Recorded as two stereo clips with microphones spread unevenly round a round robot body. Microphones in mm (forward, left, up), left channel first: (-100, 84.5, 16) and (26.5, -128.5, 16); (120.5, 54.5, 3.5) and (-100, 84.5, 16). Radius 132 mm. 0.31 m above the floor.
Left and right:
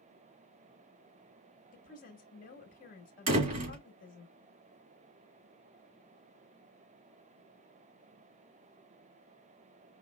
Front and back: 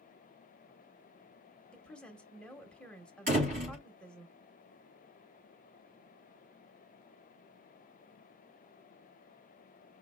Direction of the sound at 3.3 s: 125° right.